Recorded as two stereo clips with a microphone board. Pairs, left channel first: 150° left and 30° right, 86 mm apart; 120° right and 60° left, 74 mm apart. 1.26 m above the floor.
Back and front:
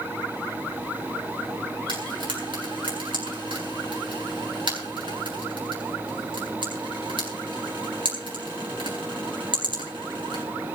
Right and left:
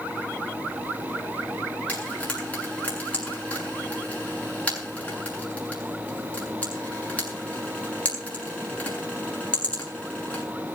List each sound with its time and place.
1.9 s frying: 45° right, 7.5 m